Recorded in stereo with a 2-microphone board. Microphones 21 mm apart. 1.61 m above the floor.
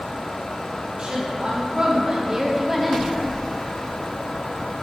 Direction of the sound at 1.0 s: 50° right (ahead or behind).